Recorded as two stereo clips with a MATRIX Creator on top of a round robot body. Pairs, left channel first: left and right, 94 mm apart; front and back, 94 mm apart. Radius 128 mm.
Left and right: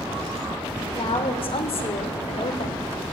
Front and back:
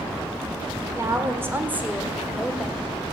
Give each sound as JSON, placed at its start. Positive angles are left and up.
{"t": 0.9, "sound": "a woman speaking", "azimuth_deg": 120, "distance_m": 4.0}